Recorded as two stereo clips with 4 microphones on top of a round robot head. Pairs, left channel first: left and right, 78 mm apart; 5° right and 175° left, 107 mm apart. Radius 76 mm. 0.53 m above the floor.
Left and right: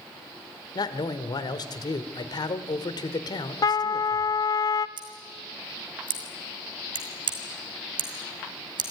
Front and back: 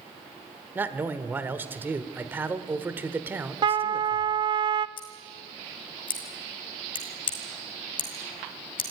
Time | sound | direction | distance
0.8 | a man speaking | 105° left | 1.6 m
3.6 | a trumpet | 130° left | 0.7 m
5.0 | scissors | 55° right | 2.5 m